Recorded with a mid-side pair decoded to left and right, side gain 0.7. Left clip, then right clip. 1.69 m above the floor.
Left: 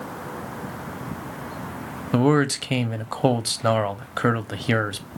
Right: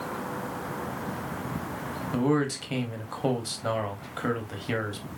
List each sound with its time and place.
2.1 s a man speaking: 40° left, 0.9 m